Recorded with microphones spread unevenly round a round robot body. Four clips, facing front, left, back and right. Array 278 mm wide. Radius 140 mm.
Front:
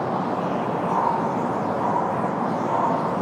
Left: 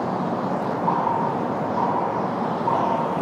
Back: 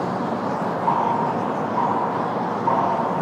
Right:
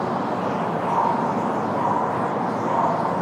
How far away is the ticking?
About 7.5 m.